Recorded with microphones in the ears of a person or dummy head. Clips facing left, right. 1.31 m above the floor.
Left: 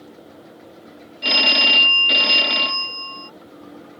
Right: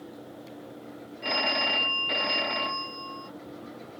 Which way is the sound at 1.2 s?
45° left (ahead or behind).